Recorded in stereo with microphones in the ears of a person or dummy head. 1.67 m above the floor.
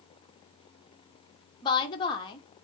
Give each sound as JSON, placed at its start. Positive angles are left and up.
{"t": 1.6, "sound": "a woman speaking", "side_deg": 30, "distance_m": 0.9}